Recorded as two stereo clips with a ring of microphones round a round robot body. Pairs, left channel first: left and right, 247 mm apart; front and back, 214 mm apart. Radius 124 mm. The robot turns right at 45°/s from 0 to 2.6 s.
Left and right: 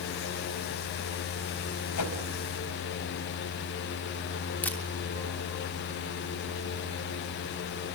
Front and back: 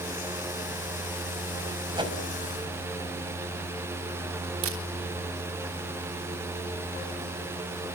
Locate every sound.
1.9 s a whoosh: 110° left, 5 m; by 2.1 s 120° left, 5 m
4.6 s a camera shutter: 175° left, 3 m